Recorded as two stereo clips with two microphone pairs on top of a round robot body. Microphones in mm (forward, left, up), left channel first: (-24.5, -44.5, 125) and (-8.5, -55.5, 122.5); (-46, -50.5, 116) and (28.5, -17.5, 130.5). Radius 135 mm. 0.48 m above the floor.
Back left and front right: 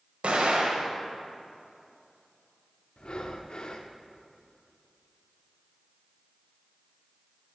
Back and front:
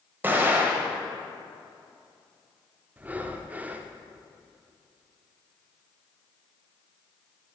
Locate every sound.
0.2 s an explosion: 45° right, 1.5 m
3.0 s breathing: 100° left, 0.5 m